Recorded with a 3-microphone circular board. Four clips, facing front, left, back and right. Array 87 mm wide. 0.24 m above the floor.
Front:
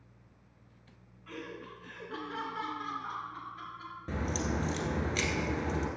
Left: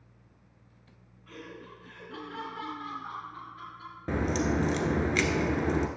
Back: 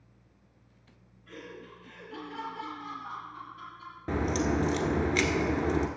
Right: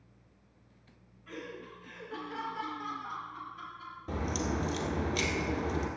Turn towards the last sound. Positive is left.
turn(degrees=120)